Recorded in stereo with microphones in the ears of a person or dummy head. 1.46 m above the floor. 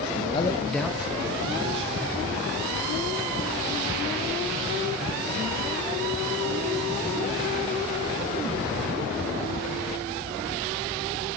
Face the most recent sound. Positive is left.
turn(degrees=-30)  # may be behind; listen again after turning